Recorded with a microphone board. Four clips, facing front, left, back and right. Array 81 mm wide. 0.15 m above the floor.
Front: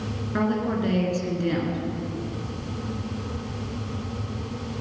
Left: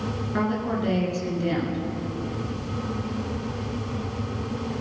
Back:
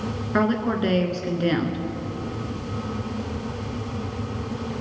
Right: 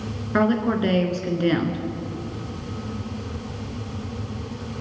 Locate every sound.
0.3 s a woman speaking: 125° right, 2 m